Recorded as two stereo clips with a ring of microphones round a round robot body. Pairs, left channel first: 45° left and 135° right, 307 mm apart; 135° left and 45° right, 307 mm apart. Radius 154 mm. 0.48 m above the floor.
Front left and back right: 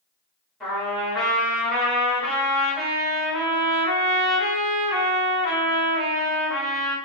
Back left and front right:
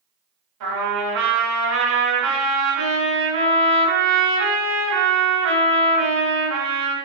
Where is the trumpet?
45° right, 1.7 m.